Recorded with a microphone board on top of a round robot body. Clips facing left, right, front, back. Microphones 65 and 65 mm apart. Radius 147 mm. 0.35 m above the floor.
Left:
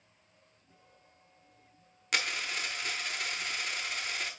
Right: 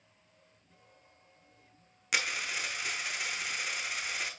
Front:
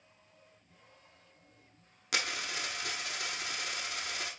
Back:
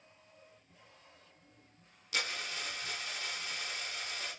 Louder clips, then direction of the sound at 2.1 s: Even, front 2 dB; 5° right.